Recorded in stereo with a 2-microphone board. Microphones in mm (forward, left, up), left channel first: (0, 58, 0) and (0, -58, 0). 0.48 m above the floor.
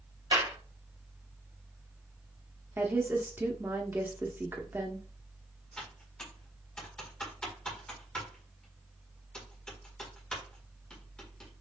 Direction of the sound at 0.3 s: 45° right (ahead or behind).